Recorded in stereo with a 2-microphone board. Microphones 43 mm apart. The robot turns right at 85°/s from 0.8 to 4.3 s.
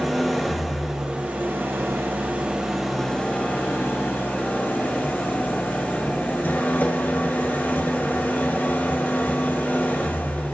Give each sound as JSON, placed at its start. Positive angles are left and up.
{"t": 0.0, "sound": "an engine running", "azimuth_deg": -175, "distance_m": 3.5}